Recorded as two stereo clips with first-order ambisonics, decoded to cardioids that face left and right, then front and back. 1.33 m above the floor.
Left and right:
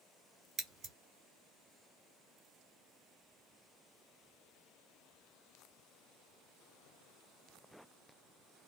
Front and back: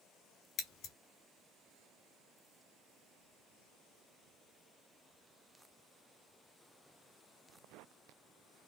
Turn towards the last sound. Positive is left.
turn(degrees=-35)